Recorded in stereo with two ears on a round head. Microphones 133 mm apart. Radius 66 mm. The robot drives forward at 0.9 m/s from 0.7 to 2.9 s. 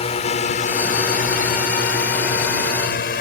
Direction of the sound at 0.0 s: 45° left (ahead or behind).